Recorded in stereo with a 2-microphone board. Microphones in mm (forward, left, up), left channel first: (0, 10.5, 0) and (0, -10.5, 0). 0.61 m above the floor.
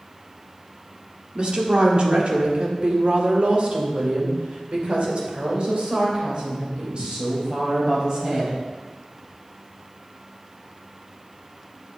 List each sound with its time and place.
1.4 s a woman speaking: 45° right (ahead or behind), 1.7 m; by 8.5 s 40° right (ahead or behind), 4 m